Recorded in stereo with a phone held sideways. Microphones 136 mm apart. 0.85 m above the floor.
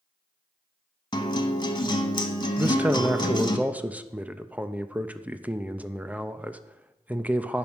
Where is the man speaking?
10° right (ahead or behind), 0.5 m.